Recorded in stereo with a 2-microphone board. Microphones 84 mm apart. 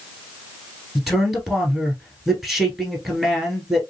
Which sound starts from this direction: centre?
A man speaking, at 0.9 s.